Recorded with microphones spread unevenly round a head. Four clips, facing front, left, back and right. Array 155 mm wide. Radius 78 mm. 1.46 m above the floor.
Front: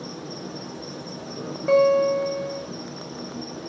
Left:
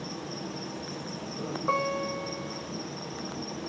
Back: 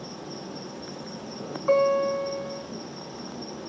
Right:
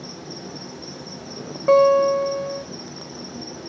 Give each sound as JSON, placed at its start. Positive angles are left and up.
{"t": 0.0, "sound": "an insect", "azimuth_deg": -20, "distance_m": 3.5}
{"t": 1.7, "sound": "a guitar", "azimuth_deg": -75, "distance_m": 2.5}